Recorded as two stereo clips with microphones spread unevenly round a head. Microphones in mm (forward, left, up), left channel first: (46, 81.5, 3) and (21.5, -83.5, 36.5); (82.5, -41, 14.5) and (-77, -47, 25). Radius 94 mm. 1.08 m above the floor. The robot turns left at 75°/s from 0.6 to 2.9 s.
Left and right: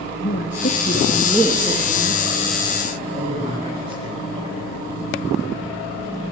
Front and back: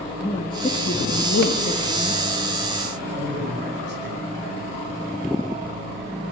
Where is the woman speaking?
55° left, 2.5 m; by 2.2 s 65° right, 2.5 m.